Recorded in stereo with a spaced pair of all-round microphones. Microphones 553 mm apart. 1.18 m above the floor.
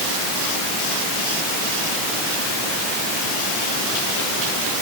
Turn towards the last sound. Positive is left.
No sound to turn to.